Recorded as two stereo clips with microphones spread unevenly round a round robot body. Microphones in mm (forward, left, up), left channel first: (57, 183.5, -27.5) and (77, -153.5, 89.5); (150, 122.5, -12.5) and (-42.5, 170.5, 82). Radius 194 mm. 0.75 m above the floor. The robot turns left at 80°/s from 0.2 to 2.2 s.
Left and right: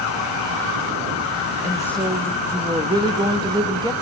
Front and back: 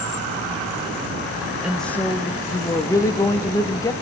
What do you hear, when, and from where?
1.6 s a woman speaking: 55° left, 0.9 m; by 3.9 s 10° left, 0.9 m